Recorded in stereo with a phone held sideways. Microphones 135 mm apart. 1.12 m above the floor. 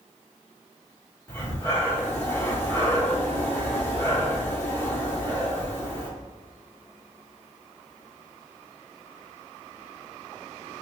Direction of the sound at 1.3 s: 20° left (ahead or behind).